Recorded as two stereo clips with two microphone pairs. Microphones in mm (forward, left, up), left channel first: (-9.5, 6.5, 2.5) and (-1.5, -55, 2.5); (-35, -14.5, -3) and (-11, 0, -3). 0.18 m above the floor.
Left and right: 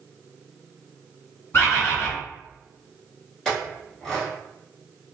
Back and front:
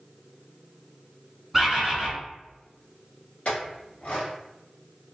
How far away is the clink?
About 1.3 m.